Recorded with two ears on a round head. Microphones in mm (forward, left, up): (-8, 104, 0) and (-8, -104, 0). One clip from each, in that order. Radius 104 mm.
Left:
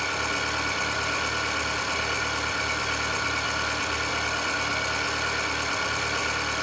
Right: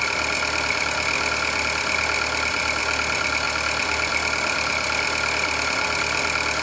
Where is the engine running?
55° right (ahead or behind), 3.5 m.